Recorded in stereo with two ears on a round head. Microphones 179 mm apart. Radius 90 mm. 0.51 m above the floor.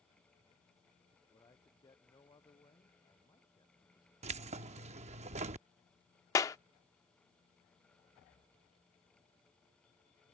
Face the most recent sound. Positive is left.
turn(degrees=15)  # may be behind; listen again after turning